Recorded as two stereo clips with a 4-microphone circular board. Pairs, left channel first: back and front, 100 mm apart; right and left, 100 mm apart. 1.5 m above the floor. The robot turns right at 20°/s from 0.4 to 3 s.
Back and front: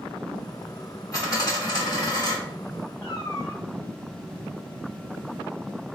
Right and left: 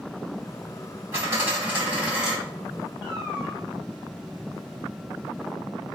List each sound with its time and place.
1.1 s a dropped coin: 145° left, 1.7 m; by 2.4 s 170° left, 1.7 m
3.0 s a cat meowing: 170° left, 1.8 m